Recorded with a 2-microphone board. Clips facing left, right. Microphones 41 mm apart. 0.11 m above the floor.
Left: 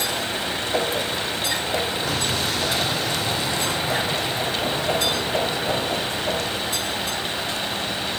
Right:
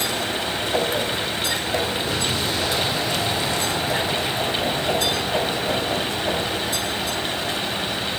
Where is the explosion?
65° left (ahead or behind), 5.5 m.